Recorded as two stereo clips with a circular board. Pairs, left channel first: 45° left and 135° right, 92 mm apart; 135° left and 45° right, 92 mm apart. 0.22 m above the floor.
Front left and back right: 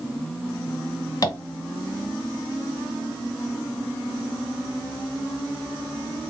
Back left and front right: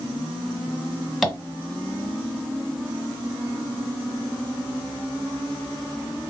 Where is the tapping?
45° left, 1.0 m.